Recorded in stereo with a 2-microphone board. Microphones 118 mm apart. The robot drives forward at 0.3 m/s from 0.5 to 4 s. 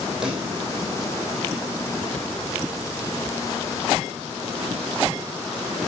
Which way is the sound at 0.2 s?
5° right (ahead or behind).